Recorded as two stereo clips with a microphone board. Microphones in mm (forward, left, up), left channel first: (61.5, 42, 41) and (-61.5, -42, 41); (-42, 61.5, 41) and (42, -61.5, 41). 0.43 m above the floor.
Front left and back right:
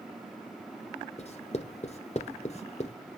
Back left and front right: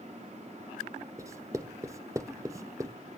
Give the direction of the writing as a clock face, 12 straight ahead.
12 o'clock.